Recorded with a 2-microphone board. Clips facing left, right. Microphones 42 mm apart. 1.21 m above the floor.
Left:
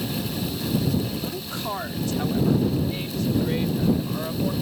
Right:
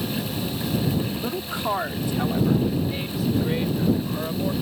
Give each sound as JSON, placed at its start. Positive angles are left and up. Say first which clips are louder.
{"t": 1.1, "sound": "a woman speaking", "louder": "right 2 dB", "side_deg": -30}